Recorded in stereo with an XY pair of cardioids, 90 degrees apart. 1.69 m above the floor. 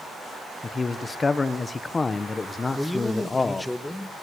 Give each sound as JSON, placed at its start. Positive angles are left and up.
{"t": 0.6, "sound": "a man speaking", "azimuth_deg": 35, "distance_m": 1.6}
{"t": 2.7, "sound": "a man speaking", "azimuth_deg": 15, "distance_m": 2.0}